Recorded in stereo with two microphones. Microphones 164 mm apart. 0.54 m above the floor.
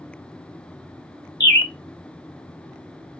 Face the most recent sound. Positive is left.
turn(degrees=85)